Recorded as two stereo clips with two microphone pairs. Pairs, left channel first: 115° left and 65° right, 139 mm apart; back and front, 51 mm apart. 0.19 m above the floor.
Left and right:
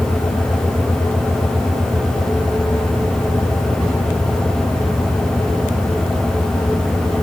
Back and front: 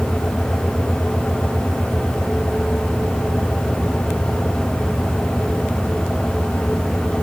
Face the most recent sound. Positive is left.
No sound to turn to.